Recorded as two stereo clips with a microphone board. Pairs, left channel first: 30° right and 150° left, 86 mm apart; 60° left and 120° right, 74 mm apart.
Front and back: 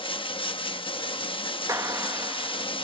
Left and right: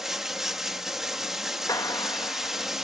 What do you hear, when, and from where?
0.0 s running water: 35° right, 1.0 m
1.7 s a clap: 100° left, 1.3 m